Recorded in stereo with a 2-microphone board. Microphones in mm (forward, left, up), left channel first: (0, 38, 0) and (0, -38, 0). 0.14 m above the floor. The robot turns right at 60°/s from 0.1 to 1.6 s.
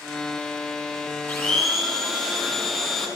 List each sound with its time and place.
1.3 s a blender: 25° left (ahead or behind), 6 m; by 3.1 s 5° left (ahead or behind), 6 m